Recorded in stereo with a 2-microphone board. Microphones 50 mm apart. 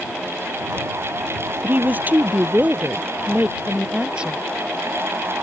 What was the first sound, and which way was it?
A woman speaking, 40° right (ahead or behind).